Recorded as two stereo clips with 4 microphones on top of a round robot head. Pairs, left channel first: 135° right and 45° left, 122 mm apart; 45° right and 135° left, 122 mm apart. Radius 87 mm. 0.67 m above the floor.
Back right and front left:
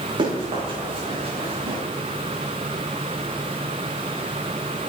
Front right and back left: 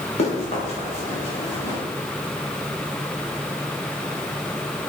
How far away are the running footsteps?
About 7.5 m.